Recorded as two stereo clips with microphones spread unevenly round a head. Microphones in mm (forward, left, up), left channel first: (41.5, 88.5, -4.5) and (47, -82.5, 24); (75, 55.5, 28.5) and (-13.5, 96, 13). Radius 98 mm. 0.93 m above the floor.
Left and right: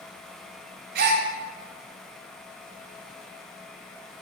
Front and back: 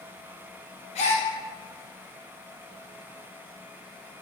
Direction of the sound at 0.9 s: 60° right.